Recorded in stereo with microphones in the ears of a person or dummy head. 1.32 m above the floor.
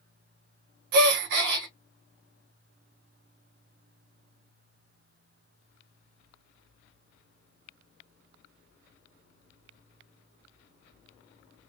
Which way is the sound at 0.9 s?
70° right (ahead or behind).